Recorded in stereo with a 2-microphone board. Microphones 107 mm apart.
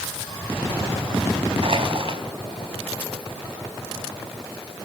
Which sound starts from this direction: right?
Crushing, at 1.6 s.